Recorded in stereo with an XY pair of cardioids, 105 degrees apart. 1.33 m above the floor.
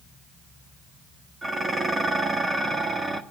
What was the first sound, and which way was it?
Dishes clattering, 30° right.